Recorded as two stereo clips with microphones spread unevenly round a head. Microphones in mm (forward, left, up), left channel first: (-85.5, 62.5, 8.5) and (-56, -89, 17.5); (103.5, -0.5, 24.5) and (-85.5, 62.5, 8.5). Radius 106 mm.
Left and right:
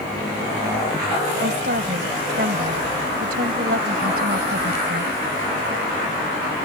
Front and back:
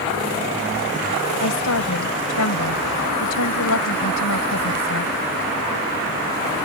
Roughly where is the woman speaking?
Ahead right.